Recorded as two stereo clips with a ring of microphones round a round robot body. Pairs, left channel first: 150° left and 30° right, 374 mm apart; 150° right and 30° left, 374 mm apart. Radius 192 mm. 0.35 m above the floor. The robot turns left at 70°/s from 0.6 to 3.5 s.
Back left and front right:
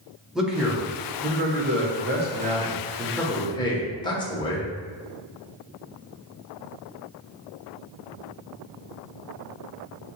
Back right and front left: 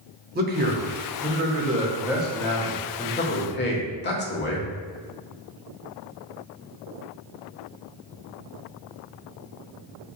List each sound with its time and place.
0.3 s a man speaking: 55° left, 0.9 m; by 4.7 s 145° right, 0.9 m